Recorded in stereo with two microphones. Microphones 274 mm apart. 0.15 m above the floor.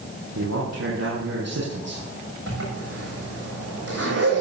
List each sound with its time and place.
0.3 s a man speaking: 70° right (ahead or behind), 5.5 m
2.5 s a zipper: 65° right (ahead or behind), 7.5 m